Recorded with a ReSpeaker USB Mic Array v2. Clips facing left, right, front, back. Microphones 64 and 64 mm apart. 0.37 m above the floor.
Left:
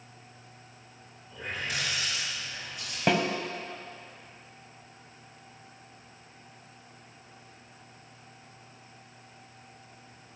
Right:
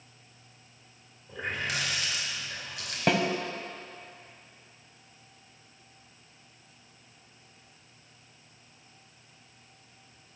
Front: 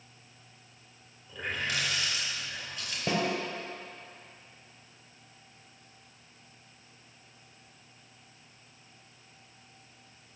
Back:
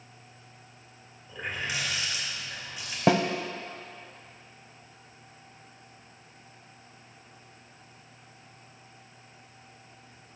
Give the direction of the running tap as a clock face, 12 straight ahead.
3 o'clock.